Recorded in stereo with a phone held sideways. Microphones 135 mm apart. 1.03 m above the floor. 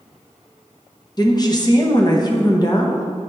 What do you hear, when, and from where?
1.2 s a woman speaking: 30° left (ahead or behind), 0.8 m